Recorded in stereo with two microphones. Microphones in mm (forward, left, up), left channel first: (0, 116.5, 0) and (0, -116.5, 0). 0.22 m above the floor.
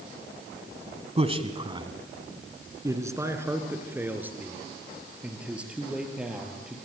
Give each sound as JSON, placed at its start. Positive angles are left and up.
{"t": 1.2, "sound": "a man speaking", "side_deg": -25, "distance_m": 1.3}